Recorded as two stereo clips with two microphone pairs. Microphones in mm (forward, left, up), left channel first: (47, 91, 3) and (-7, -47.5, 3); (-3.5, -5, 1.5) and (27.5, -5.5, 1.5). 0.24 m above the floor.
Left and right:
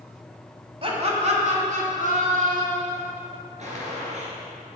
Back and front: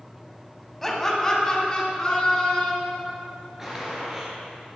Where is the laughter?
100° right, 1.7 m; by 3.0 s 120° right, 4 m.